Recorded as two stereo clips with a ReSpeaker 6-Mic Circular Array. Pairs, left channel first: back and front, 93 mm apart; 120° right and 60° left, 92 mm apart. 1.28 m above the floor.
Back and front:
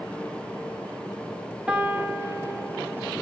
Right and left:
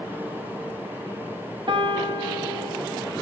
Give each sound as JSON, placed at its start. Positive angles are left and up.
{"t": 1.7, "sound": "a piano", "azimuth_deg": 75, "distance_m": 1.0}